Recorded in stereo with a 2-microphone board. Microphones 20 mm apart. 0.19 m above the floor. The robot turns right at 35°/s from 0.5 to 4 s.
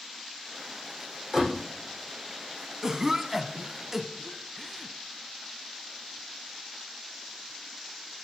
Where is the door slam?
30° right (ahead or behind), 6.5 m; by 1.6 s 20° right (ahead or behind), 6.5 m.